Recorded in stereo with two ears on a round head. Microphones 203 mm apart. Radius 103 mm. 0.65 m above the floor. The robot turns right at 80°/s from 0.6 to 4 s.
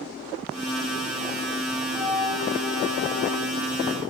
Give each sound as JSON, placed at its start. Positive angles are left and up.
{"t": 1.9, "sound": "a flute", "azimuth_deg": -10, "distance_m": 3.5}